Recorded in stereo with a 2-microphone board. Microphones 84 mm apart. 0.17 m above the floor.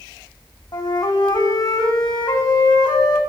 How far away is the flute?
About 2.5 m.